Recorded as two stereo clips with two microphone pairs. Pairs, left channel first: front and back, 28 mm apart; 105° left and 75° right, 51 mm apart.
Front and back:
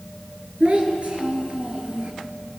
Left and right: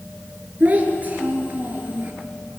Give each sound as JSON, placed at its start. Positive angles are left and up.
{"t": 0.6, "sound": "a child speaking", "azimuth_deg": -135, "distance_m": 3.5}